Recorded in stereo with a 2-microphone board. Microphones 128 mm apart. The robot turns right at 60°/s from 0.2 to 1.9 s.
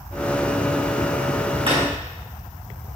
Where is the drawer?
40° right (ahead or behind), 3 m; by 1.8 s 30° right (ahead or behind), 3 m.